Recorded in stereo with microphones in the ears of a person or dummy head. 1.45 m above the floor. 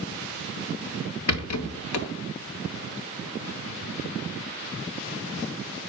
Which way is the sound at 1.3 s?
80° left.